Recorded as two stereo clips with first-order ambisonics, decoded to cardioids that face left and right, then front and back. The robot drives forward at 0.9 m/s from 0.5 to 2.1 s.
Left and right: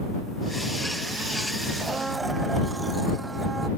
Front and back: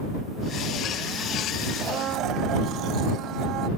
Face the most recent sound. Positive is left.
turn(degrees=-165)